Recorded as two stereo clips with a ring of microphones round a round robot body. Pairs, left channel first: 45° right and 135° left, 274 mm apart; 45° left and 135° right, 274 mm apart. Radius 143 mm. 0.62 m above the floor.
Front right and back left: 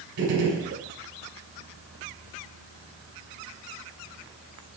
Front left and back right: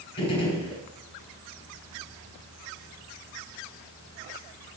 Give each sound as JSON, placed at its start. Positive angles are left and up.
{"t": 0.2, "sound": "a gunshot", "azimuth_deg": 120, "distance_m": 5.5}